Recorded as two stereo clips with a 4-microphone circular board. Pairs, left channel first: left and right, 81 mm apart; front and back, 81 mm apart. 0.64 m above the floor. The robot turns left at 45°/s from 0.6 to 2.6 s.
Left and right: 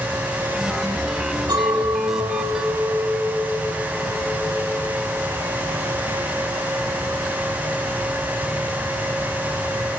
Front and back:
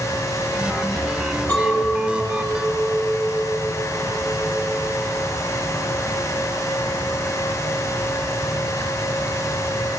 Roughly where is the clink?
Ahead right.